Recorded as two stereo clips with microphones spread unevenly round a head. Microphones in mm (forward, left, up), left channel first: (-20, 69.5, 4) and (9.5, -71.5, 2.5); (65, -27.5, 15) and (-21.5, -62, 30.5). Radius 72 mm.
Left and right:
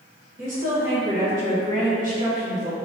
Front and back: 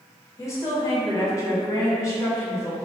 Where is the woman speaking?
40° right, 1.1 m.